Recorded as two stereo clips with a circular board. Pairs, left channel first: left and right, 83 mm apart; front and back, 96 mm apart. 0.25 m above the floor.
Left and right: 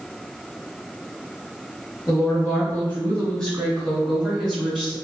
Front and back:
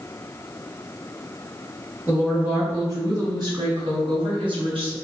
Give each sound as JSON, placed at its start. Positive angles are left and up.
{"t": 2.1, "sound": "a woman speaking", "azimuth_deg": 115, "distance_m": 1.3}